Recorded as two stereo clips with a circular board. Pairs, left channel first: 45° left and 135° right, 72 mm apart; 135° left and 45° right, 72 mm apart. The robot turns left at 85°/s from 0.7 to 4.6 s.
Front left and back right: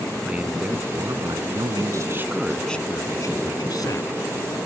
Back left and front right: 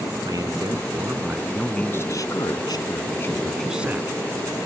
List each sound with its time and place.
0.2 s a man speaking: 65° right; by 4.2 s straight ahead